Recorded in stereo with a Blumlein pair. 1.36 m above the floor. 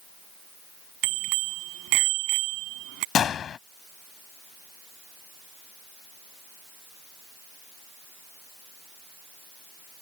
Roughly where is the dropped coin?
I don't hear a dropped coin.